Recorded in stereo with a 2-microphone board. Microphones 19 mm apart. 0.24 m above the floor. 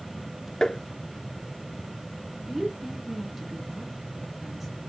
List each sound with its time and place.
0.6 s tapping: 35° left (ahead or behind), 0.6 m
2.5 s a woman speaking: 5° right (ahead or behind), 5 m